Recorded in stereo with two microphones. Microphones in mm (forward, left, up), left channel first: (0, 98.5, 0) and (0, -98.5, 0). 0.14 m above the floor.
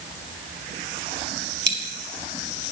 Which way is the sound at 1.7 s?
65° right (ahead or behind).